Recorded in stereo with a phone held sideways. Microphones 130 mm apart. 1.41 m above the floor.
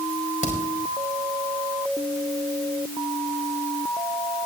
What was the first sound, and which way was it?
A crack, 80° left.